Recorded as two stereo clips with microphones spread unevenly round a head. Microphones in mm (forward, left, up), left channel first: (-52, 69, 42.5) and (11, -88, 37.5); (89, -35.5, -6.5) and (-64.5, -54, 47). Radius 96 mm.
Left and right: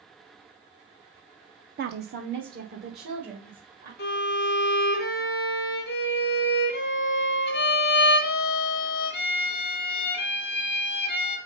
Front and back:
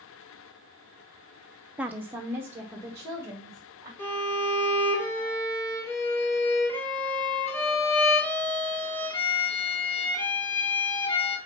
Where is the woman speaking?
100° right, 0.5 m.